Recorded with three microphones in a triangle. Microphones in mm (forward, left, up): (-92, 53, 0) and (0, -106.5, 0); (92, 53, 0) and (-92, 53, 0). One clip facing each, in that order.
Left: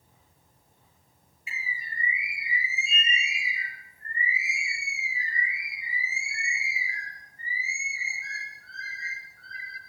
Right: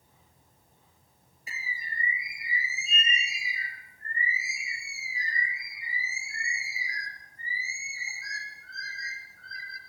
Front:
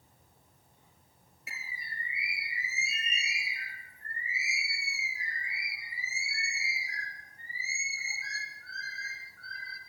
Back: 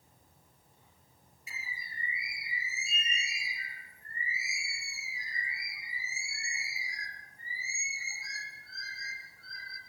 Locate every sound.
1.5 s a bird: 15° right, 4 m